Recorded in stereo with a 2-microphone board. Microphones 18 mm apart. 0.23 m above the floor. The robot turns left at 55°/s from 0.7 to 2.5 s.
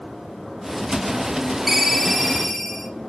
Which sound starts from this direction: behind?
A ringtone, at 1.7 s.